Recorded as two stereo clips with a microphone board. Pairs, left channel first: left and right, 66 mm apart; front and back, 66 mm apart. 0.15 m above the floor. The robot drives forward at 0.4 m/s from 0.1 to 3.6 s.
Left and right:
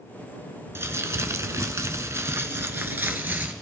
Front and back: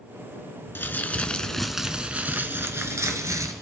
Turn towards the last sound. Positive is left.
turn(degrees=-150)